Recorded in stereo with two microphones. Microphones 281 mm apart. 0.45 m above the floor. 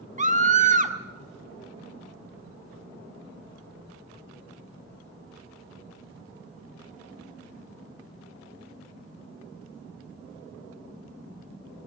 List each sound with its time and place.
0.2 s a scream: 25° right (ahead or behind), 1.0 m